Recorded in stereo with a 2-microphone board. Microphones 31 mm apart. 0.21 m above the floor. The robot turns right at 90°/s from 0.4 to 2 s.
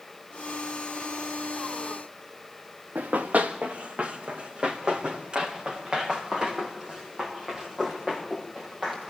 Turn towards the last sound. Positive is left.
turn(degrees=-20)  # may be behind; listen again after turning